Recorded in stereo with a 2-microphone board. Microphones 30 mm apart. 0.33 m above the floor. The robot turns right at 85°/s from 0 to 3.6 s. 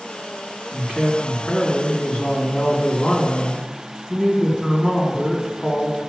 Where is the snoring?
I don't hear snoring.